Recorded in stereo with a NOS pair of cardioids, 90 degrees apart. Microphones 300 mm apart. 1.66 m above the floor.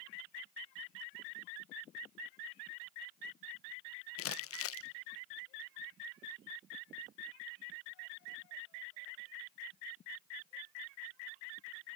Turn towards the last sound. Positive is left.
turn(degrees=50)